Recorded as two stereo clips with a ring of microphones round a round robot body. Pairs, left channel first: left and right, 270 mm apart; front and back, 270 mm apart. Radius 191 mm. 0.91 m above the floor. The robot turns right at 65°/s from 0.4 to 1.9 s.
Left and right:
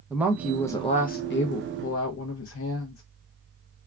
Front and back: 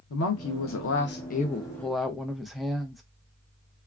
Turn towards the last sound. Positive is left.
turn(degrees=90)